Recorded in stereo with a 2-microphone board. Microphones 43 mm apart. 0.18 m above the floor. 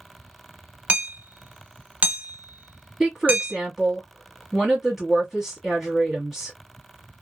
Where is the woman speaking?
5° right (ahead or behind), 1.2 m.